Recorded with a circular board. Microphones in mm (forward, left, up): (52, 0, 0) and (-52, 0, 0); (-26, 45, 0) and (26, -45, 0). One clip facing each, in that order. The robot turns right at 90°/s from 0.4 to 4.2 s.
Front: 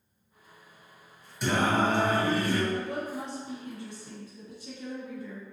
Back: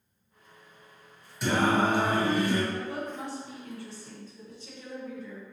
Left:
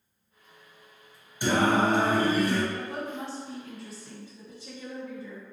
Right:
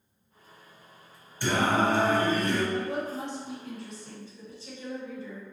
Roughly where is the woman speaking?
Ahead right.